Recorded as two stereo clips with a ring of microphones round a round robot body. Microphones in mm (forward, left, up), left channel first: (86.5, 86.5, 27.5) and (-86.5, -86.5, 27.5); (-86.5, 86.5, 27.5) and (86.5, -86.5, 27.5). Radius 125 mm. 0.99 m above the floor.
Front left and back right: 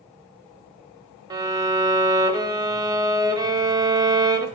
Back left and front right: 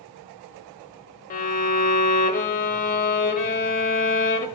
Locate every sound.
1.3 s a violin: 160° left, 0.8 m